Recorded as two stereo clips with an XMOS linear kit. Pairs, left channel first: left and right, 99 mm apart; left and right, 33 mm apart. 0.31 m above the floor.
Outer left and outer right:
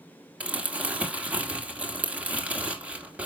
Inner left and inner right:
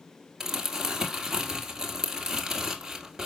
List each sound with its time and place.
0.4 s crumpling: 15° right (ahead or behind), 1.9 m